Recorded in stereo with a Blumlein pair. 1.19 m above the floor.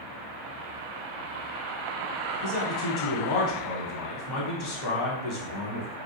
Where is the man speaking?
35° left, 1.1 m.